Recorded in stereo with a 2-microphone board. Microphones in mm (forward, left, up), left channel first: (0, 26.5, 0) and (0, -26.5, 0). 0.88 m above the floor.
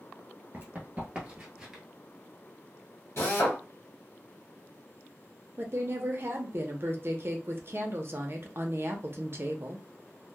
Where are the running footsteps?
40° right (ahead or behind), 1.0 m; by 1.8 s 5° right (ahead or behind), 1.0 m.